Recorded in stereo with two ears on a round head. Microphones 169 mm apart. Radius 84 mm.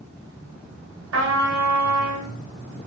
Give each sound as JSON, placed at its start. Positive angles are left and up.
{"t": 1.1, "sound": "a trumpet", "side_deg": -80, "distance_m": 1.3}